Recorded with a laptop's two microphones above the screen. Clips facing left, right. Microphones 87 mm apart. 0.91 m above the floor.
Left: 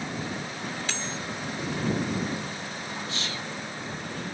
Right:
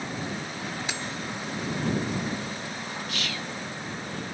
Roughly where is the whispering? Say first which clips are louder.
Right 1 dB; left.